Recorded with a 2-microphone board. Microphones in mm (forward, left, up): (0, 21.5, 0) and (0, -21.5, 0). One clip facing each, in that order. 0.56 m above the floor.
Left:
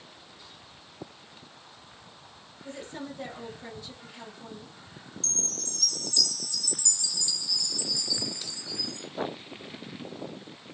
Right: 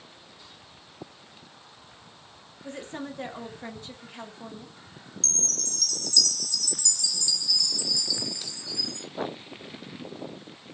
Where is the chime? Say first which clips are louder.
Right 3 dB; 20° left (ahead or behind), 0.8 m.